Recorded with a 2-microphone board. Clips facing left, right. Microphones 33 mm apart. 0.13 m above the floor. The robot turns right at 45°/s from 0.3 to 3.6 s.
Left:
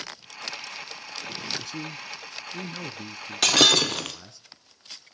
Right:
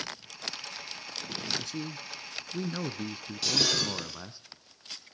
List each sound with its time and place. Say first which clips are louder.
1.6 s a man speaking: left 2 dB; 10° left (ahead or behind), 1.1 m; by 4.4 s 20° right (ahead or behind), 1.1 m
3.4 s breaking glass: left 10 dB; 70° left (ahead or behind), 1.6 m